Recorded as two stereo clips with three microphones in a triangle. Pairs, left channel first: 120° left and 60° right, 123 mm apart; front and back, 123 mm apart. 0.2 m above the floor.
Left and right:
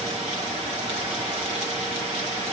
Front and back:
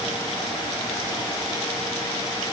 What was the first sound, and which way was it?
Only background noise.